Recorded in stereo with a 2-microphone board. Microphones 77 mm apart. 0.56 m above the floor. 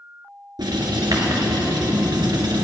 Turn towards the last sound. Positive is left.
turn(degrees=-65)  # may be behind; listen again after turning